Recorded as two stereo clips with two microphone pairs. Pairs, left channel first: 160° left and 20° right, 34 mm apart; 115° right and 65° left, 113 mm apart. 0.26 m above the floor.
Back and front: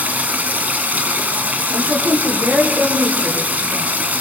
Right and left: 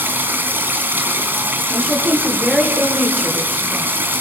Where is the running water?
5° right, 2.5 m.